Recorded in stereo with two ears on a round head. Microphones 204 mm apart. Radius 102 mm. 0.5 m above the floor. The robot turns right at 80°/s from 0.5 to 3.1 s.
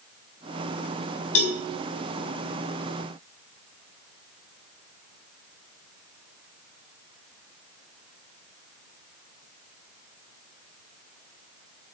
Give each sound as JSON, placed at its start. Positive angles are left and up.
{"t": 1.4, "sound": "a cowbell", "side_deg": 75, "distance_m": 2.5}